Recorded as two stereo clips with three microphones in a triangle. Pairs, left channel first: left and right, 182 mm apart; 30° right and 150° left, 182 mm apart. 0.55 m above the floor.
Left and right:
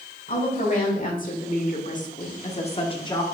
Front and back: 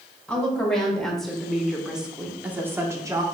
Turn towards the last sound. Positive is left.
turn(degrees=120)